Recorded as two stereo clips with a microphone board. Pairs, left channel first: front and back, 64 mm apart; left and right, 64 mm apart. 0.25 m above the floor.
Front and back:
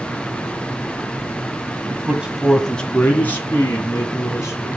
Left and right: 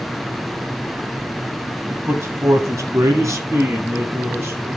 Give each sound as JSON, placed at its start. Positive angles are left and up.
{"t": 1.9, "sound": "a man speaking", "azimuth_deg": -140, "distance_m": 1.3}